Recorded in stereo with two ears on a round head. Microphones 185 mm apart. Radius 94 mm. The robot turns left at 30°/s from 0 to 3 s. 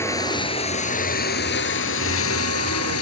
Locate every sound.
0.0 s running water: 165° left; by 3.0 s 75° left